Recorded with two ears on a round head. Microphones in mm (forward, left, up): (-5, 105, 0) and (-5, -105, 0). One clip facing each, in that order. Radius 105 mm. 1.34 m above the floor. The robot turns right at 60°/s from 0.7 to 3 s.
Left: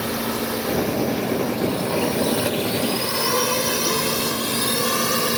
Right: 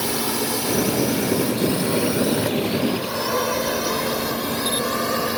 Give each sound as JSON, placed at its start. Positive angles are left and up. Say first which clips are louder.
{"t": 0.0, "sound": "a drone", "louder": "even", "side_deg": -70}